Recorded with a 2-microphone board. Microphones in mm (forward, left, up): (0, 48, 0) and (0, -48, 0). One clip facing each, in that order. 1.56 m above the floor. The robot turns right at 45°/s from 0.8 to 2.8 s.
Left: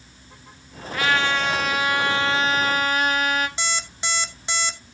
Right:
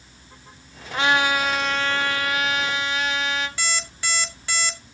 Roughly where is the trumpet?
Ahead right.